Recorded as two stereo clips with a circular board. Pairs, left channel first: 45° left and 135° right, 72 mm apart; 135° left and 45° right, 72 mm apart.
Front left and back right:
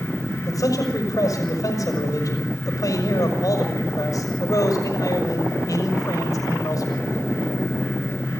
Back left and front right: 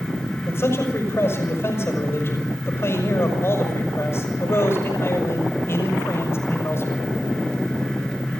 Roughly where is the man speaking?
Left.